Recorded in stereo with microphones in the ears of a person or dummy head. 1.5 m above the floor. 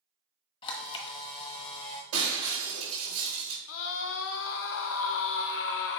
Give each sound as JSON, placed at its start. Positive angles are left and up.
{"t": 0.6, "sound": "a camera shutter", "side_deg": 30, "distance_m": 1.2}
{"t": 2.1, "sound": "breaking glass", "side_deg": -75, "distance_m": 3.5}
{"t": 3.7, "sound": "a scream", "side_deg": 65, "distance_m": 0.8}